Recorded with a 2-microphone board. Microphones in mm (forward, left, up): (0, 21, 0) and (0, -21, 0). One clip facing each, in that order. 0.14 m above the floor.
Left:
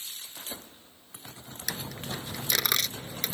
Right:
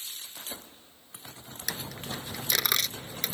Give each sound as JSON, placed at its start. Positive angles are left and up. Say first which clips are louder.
{"t": 1.7, "sound": "a dropped coin", "louder": "left 1 dB", "side_deg": 0}